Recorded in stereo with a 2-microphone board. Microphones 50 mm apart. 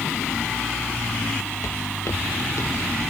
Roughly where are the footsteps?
Left.